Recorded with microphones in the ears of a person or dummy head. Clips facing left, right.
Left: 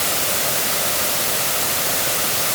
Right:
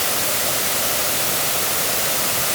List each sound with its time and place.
Only background noise.